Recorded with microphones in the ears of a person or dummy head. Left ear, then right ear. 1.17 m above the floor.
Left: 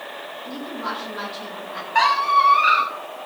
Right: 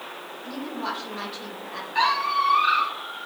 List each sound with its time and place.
0.5 s a woman speaking: 10° right (ahead or behind), 5 m
1.9 s a squeak: 45° left (ahead or behind), 4.5 m